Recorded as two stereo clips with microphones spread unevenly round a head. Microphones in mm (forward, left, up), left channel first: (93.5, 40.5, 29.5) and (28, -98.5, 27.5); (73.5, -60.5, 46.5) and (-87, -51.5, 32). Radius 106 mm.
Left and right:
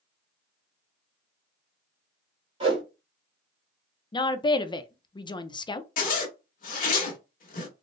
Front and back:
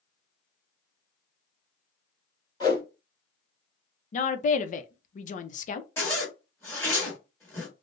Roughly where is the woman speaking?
Ahead.